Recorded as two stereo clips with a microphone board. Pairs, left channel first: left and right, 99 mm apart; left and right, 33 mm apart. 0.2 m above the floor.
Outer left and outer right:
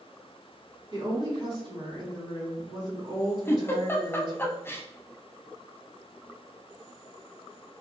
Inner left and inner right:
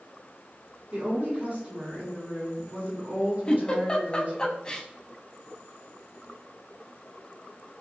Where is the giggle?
25° left (ahead or behind), 0.5 m.